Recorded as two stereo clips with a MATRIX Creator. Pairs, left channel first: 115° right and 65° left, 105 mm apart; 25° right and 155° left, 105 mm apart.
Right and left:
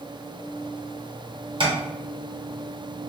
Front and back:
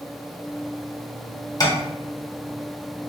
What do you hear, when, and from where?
1.6 s tapping: 30° left, 0.6 m